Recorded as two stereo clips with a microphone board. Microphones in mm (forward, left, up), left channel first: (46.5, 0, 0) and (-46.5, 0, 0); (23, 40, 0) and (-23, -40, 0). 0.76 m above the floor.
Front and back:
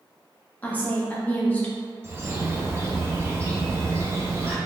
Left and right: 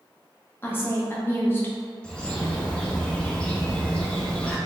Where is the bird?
135° left, 0.5 m.